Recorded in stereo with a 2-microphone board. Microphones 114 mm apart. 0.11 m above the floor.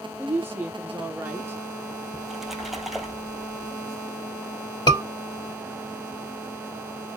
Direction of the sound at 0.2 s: 20° right (ahead or behind).